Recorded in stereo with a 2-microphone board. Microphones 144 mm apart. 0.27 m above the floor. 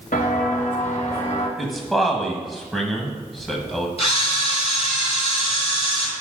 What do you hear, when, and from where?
0.1 s footsteps: 70° left (ahead or behind), 2 m; by 1.5 s 50° left (ahead or behind), 2.5 m
1.6 s a man speaking: centre (ahead or behind), 1.3 m
4.0 s a camera shutter: 45° left (ahead or behind), 2.0 m